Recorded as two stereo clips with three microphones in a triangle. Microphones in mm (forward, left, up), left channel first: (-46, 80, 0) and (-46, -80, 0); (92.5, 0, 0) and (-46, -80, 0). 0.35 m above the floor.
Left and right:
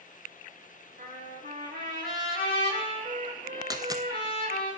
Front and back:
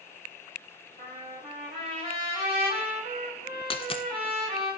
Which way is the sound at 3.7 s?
25° right.